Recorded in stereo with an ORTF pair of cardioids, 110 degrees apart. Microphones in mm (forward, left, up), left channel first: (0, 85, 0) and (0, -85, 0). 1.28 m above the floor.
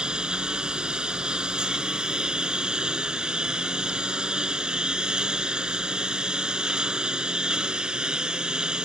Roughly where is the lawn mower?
Ahead.